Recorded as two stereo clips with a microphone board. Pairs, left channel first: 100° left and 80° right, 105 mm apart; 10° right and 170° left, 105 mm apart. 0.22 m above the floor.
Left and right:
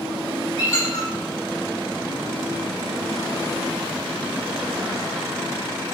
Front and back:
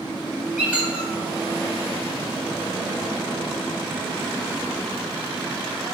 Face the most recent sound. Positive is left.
turn(degrees=105)